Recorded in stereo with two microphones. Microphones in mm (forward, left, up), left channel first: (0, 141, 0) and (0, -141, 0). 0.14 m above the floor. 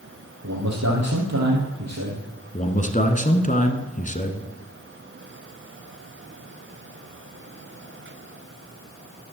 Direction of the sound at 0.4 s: 70° right (ahead or behind).